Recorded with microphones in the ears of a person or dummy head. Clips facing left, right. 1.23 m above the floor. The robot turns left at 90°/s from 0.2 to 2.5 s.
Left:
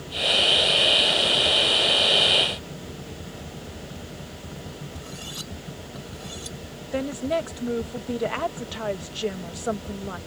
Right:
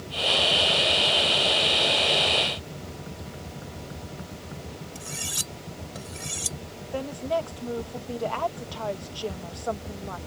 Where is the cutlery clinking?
35° right (ahead or behind).